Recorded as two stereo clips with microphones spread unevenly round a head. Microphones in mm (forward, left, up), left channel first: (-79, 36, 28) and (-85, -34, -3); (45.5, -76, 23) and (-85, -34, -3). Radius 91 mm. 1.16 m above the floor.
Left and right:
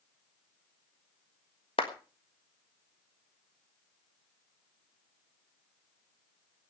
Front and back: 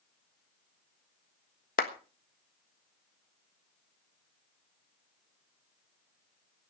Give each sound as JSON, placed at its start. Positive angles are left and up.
{"t": 1.8, "sound": "a clap", "azimuth_deg": 30, "distance_m": 1.3}